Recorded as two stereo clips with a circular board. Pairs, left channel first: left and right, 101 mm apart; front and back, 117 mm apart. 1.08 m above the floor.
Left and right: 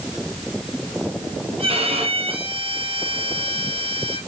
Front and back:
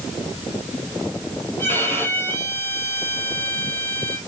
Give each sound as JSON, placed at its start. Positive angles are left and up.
{"t": 1.6, "sound": "a violin", "azimuth_deg": -70, "distance_m": 4.5}